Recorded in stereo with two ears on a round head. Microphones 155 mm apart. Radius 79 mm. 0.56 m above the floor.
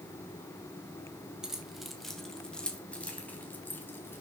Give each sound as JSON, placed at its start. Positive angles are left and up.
{"t": 1.4, "sound": "keys jangling", "side_deg": -5, "distance_m": 2.5}